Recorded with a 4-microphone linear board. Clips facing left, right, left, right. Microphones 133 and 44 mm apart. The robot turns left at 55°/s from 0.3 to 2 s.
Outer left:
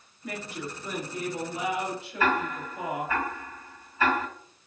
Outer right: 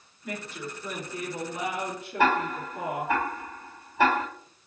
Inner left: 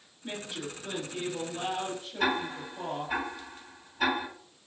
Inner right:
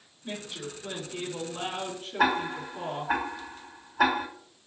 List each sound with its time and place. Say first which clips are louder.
0.2 s a woman speaking: outer left 1 dB, even; 25° left, 2.5 m; by 3.1 s 65° right, 2.5 m
2.2 s ticking: outer right 3 dB, inner right 4 dB; 80° right, 2.5 m